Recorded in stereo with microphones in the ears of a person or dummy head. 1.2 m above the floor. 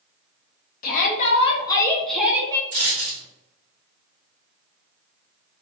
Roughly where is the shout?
Left.